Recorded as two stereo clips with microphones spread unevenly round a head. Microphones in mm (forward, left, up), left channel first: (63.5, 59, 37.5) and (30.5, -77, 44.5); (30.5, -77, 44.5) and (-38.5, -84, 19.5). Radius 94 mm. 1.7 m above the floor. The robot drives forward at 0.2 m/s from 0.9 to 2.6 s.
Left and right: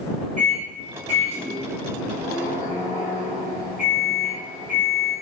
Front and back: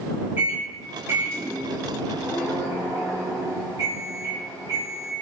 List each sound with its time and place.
0.4 s a microwave: 110° right, 0.8 m; by 5.1 s 135° right, 0.9 m